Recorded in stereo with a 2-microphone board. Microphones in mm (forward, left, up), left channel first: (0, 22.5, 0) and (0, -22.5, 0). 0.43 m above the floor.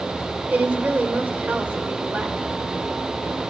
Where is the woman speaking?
40° right (ahead or behind), 1.2 m.